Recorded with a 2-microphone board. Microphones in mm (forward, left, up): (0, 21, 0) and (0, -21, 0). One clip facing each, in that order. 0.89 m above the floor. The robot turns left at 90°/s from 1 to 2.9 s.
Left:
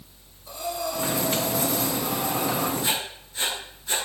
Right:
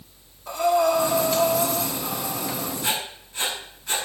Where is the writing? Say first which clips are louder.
Even; 55° right (ahead or behind), 6.5 m; by 4.0 s 65° right (ahead or behind), 6.5 m.